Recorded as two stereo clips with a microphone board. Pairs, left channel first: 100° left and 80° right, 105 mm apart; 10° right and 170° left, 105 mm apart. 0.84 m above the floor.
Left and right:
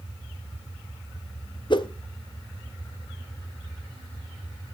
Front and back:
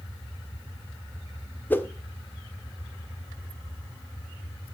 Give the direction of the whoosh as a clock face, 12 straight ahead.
10 o'clock.